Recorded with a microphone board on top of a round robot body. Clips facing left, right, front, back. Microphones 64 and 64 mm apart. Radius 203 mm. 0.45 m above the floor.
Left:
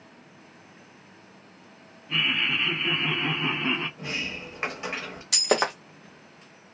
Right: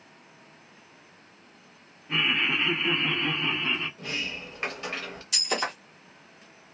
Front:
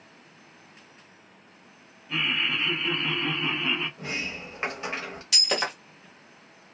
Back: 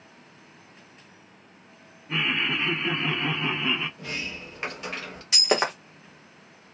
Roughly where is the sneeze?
No sneeze in this recording.